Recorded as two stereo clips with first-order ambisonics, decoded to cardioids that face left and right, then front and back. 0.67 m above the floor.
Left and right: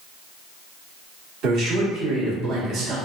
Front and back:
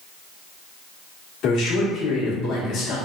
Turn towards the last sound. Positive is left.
turn(degrees=-45)